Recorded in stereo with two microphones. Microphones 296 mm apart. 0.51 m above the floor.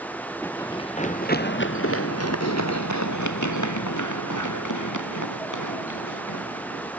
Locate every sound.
0.4 s running footsteps: 5° left (ahead or behind); by 6.9 s 85° left